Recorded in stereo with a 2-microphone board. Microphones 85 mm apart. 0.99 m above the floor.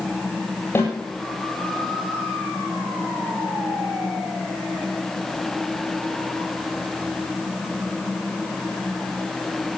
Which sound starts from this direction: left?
A snare drum, at 0.8 s.